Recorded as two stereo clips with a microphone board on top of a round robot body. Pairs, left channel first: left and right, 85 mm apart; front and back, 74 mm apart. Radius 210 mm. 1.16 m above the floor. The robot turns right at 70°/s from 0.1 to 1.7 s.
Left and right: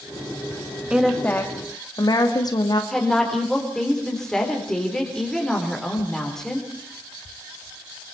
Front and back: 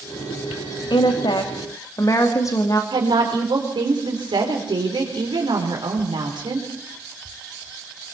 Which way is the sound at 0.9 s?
10° right.